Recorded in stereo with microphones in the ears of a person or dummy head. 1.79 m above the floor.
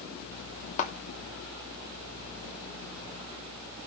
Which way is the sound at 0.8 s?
40° left (ahead or behind).